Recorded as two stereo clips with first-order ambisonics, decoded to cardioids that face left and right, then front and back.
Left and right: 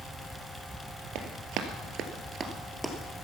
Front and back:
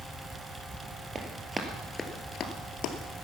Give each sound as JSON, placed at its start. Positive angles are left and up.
{"t": 1.1, "sound": "running footsteps", "azimuth_deg": -110, "distance_m": 1.9}